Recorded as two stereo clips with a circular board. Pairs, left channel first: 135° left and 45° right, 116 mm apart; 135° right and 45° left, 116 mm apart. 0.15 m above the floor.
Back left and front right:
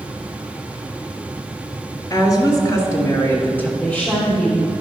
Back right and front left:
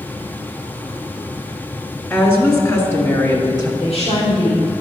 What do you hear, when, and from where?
2.1 s a woman speaking: 165° left, 2 m; by 3.7 s 160° right, 2 m
3.8 s a woman speaking: 145° right, 3.5 m